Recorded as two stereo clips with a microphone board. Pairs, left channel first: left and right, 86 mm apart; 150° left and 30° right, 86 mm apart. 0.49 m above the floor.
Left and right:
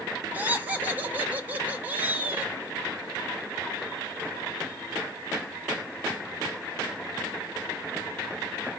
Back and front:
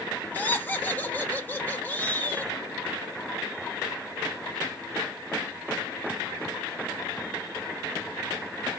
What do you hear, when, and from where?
0.3 s laughter: 150° right, 1.4 m